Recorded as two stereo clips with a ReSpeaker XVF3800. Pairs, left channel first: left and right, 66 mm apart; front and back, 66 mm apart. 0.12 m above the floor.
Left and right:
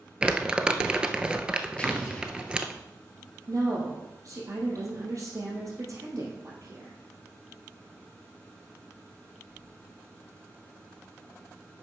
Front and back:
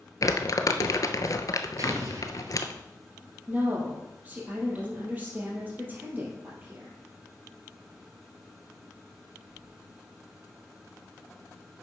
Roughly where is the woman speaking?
Behind right.